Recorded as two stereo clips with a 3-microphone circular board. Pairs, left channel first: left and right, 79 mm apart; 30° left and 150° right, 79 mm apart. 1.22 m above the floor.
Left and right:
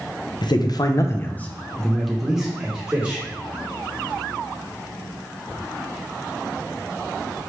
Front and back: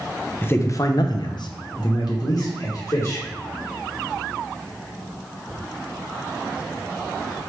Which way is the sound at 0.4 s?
90° left.